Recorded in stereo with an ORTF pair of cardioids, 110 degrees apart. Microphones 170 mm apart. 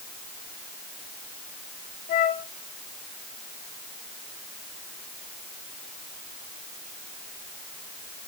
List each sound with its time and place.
2.1 s a flute: 50° left, 2.0 m